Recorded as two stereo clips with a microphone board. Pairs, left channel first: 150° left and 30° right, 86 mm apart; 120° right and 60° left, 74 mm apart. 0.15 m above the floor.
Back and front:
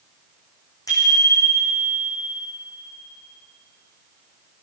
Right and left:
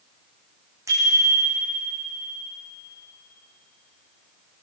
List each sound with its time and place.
0.9 s a bicycle bell: 105° left, 6.5 m; by 2.0 s 95° left, 6 m